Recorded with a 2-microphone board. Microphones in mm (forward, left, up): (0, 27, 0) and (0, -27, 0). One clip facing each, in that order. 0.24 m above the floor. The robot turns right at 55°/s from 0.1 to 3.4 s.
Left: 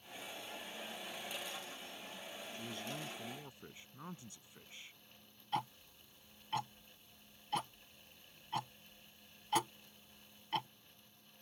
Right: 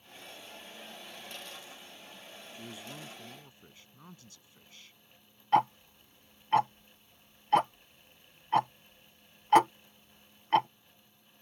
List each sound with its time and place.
2.5 s a man speaking: 25° right; by 5.0 s 25° left
5.5 s ticking: 55° right (ahead or behind)